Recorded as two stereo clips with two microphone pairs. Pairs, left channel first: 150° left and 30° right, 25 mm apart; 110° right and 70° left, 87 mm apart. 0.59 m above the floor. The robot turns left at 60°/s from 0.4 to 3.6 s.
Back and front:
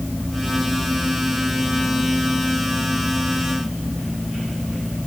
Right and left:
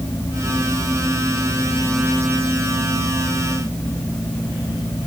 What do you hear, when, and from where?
Only background noise.